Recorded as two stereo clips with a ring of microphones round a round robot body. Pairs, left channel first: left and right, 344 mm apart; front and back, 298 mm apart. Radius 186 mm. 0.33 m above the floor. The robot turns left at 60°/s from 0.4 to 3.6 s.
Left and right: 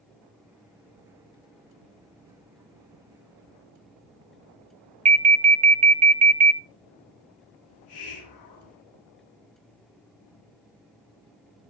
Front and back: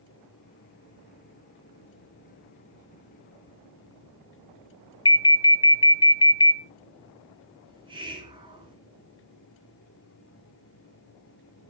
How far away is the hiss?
About 4 m.